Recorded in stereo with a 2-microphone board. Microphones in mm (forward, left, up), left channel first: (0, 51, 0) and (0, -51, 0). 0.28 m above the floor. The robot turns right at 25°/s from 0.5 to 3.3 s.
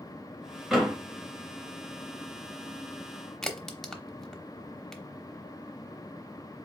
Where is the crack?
5° left (ahead or behind), 0.7 m.